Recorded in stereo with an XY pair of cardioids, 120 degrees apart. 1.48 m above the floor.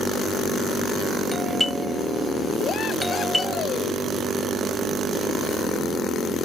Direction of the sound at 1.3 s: 5° left.